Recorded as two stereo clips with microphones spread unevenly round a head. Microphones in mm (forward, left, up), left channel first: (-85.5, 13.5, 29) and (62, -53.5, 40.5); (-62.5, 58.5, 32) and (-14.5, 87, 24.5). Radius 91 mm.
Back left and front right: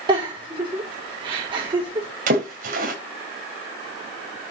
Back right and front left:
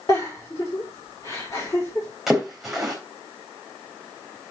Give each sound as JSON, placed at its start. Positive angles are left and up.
{"t": 0.1, "sound": "a giggle", "azimuth_deg": -85, "distance_m": 5.5}
{"t": 2.3, "sound": "a splash", "azimuth_deg": -60, "distance_m": 3.5}